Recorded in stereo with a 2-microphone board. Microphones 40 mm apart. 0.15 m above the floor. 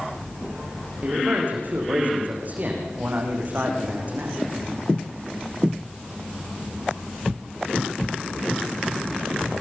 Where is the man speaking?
45° right (ahead or behind), 8.5 m.